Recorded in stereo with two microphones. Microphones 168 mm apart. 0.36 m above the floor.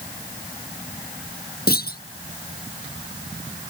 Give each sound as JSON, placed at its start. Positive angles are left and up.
{"t": 1.7, "sound": "a clunk", "side_deg": 65}